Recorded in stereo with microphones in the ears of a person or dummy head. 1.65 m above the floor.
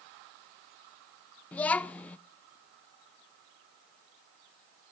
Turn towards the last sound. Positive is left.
turn(degrees=15)  # may be behind; listen again after turning